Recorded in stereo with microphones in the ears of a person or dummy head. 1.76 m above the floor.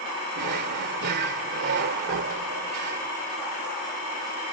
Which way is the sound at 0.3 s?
55° right (ahead or behind).